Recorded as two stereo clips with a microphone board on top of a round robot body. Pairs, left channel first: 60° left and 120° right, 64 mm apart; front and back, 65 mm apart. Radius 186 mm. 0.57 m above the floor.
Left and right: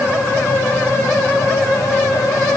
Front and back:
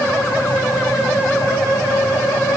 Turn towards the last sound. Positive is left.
No sound to turn to.